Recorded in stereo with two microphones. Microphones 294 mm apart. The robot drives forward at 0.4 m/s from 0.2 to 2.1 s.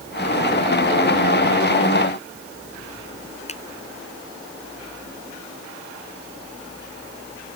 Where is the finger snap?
25° left (ahead or behind).